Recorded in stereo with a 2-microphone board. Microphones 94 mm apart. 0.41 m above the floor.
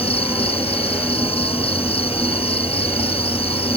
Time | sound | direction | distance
0.0 | an insect | 80° left | ?